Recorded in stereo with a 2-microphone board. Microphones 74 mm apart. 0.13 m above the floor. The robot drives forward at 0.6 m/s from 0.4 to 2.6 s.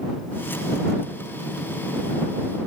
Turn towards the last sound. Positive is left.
No sound to turn to.